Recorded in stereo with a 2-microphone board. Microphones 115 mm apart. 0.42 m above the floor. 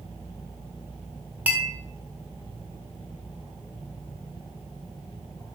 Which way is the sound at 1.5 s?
10° right (ahead or behind).